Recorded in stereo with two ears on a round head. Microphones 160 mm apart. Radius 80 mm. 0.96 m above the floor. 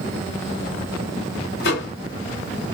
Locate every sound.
1.6 s a microwave: 65° left (ahead or behind), 1.6 m